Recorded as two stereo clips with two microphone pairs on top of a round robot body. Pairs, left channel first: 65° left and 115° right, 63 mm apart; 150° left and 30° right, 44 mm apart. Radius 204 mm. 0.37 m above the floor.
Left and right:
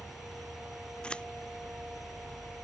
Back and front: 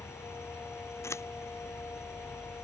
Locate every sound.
0.0 s an insect: 160° left
1.0 s scissors: 140° left